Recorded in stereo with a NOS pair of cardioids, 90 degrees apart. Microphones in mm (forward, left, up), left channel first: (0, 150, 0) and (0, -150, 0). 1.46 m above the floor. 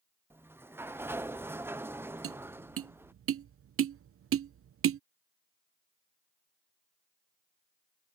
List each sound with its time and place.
0.3 s a sliding door: 10° right
2.2 s tapping: 50° right